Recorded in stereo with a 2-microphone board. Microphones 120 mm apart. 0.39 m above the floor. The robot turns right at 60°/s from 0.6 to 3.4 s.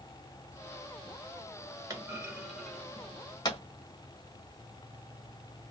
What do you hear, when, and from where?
1.9 s a clunk: 30° right (ahead or behind), 1.3 m; by 3.6 s 40° left (ahead or behind), 1.3 m